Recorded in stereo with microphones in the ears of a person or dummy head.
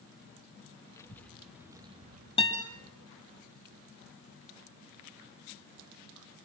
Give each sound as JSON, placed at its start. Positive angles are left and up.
{"t": 1.0, "sound": "a child speaking", "side_deg": 15, "distance_m": 1.5}
{"t": 2.4, "sound": "a guitar", "side_deg": 25, "distance_m": 3.0}